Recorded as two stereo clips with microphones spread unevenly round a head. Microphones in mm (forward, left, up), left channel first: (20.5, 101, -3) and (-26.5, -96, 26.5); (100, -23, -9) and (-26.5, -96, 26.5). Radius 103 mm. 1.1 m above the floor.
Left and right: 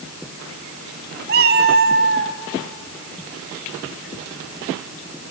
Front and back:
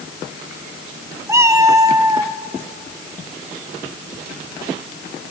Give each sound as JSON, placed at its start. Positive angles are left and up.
{"t": 1.3, "sound": "a cat meowing", "azimuth_deg": -100, "distance_m": 1.2}